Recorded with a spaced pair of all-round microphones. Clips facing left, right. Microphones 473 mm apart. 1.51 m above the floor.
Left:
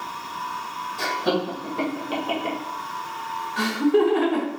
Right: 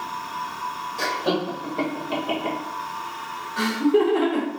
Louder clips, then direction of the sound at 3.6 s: Even; 10° left (ahead or behind).